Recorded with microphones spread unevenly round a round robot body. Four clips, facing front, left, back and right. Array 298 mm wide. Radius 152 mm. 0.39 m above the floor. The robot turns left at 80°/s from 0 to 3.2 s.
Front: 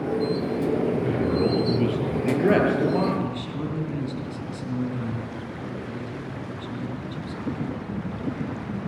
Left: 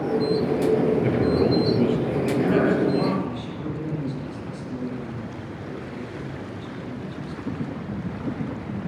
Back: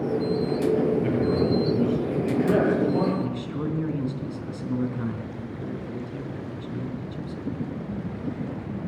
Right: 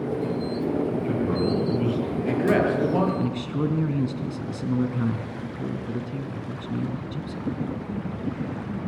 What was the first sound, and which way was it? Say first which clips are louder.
A man speaking: left 4 dB, even; 100° left.